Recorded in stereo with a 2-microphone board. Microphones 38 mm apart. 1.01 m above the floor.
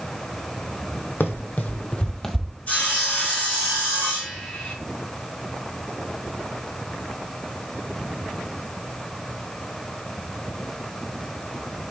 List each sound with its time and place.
1.2 s running footsteps: 55° left (ahead or behind), 1.7 m; by 2.5 s 10° right (ahead or behind), 1.2 m
2.7 s sawing: 35° left (ahead or behind), 4 m